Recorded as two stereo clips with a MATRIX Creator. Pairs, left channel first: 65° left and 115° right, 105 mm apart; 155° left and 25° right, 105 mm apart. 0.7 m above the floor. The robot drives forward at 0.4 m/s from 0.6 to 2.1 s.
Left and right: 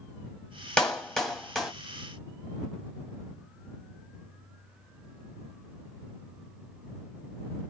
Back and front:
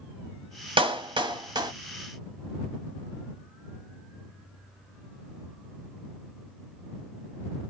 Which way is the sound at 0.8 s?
10° right.